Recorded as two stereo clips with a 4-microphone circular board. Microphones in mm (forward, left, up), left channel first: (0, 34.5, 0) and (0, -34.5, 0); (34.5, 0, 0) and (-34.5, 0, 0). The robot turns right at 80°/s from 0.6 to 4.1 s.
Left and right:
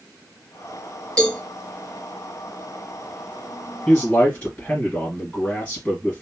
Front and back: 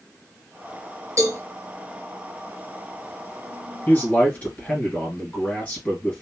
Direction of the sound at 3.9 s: 15° left.